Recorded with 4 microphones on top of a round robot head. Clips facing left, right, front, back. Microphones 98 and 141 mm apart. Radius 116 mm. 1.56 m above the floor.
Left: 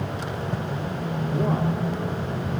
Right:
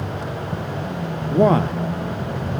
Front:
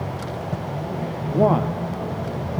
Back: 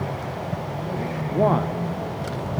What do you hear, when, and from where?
1.3 s a man speaking: 85° right, 0.9 m